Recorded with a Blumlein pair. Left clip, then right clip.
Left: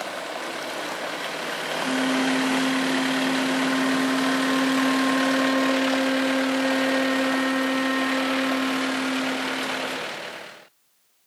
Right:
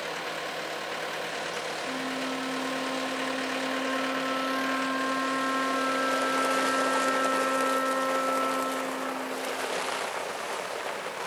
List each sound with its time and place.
1.8 s a flute: 55° left, 3.5 m